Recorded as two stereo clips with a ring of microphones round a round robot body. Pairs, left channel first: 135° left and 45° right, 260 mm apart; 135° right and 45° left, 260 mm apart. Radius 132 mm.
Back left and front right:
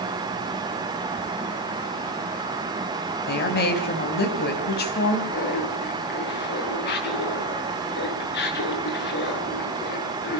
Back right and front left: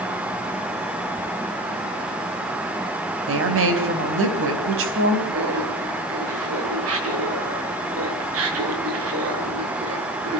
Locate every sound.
3.3 s a woman speaking: 85° left, 4 m
5.3 s laughter: 80° left, 6 m